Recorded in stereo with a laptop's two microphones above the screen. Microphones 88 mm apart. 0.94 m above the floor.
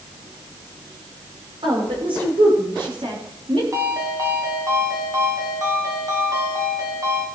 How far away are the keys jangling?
I don't hear keys jangling.